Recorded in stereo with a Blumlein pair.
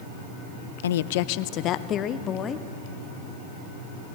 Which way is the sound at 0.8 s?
65° left.